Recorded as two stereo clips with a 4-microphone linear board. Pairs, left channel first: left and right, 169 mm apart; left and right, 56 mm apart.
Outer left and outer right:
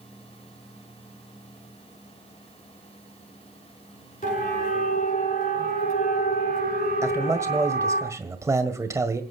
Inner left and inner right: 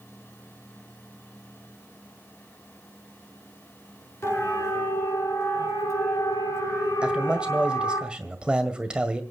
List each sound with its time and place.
4.2 s a siren: 50° left (ahead or behind), 6 m; by 8.0 s 65° left (ahead or behind), 5 m
7.0 s a man speaking: 15° right (ahead or behind), 1.8 m